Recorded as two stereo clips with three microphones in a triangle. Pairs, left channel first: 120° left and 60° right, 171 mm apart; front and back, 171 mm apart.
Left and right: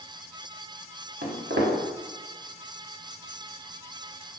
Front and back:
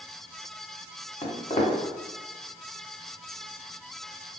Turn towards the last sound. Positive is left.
turn(degrees=-50)